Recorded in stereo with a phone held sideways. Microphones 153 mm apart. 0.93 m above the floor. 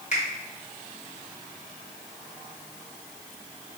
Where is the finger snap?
50° left (ahead or behind), 1.1 m.